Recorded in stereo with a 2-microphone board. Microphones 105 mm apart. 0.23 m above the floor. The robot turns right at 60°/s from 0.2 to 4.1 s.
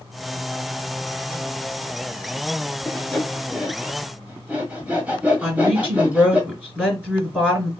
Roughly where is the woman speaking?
Centre.